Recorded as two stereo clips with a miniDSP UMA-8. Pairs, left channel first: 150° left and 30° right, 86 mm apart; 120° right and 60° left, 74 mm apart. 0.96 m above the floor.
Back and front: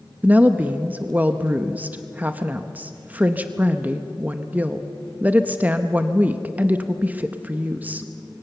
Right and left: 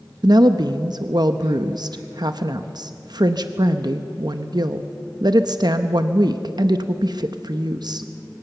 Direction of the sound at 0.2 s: 40° left.